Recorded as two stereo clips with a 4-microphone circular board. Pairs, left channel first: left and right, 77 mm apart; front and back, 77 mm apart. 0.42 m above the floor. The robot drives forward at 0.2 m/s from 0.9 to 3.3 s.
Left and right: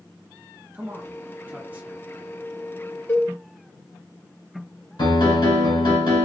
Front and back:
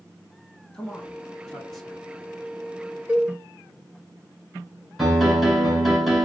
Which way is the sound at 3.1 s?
120° left.